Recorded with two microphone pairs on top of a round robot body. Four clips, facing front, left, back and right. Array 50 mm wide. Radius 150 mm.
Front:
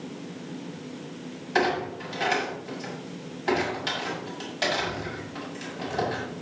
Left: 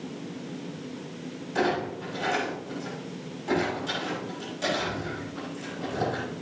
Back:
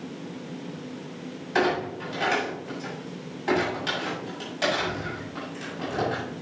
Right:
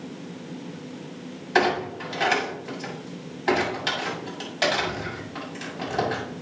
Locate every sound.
1.6 s a clunk: 90° right, 7.5 m